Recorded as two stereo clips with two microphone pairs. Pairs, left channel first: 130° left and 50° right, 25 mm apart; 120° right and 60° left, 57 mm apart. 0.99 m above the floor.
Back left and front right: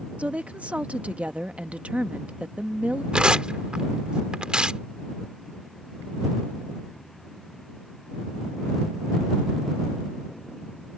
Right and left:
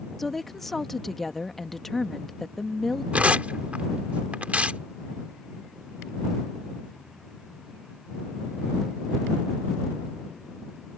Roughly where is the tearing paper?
Ahead.